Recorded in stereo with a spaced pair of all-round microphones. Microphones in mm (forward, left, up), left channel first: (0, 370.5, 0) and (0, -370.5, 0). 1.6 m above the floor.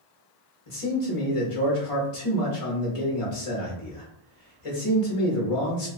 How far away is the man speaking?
About 1.0 m.